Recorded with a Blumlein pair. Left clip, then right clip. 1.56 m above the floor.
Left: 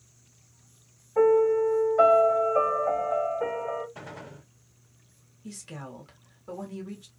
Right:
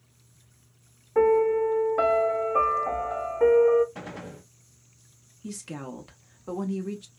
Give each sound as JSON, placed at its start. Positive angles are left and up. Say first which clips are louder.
{"t": 1.1, "sound": "a piano", "louder": "even", "azimuth_deg": -30, "distance_m": 1.1}
{"t": 4.0, "sound": "a gunshot", "louder": "right 3 dB", "azimuth_deg": -20, "distance_m": 0.9}
{"t": 5.4, "sound": "a woman speaking", "louder": "right 4 dB", "azimuth_deg": -45, "distance_m": 0.9}